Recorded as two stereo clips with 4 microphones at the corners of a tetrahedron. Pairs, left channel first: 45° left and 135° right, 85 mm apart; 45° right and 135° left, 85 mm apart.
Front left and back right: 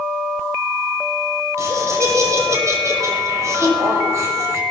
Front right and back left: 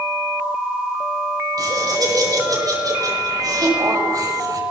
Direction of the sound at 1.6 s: 175° left.